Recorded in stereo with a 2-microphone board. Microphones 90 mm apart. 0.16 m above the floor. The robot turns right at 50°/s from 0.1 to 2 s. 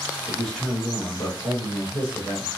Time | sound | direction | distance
0.3 | a man speaking | 10° right | 1.4 m